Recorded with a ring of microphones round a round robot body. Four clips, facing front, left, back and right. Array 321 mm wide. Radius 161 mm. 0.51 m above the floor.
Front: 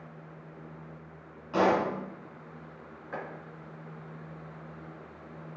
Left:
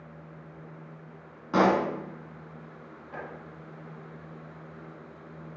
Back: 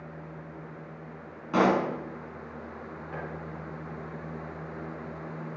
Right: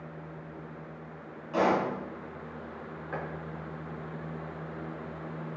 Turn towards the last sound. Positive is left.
turn(degrees=-75)